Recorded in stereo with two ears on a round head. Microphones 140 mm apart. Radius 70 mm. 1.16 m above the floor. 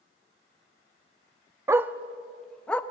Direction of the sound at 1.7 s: 20° right (ahead or behind).